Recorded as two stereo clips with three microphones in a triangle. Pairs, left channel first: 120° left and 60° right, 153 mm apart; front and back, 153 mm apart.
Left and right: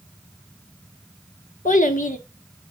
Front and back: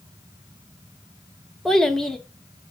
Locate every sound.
1.6 s a child speaking: 90° left, 1.0 m